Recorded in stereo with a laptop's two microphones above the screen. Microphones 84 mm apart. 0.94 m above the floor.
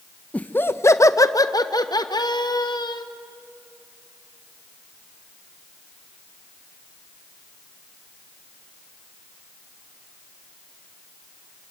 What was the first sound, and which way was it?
Laughter, 15° left (ahead or behind).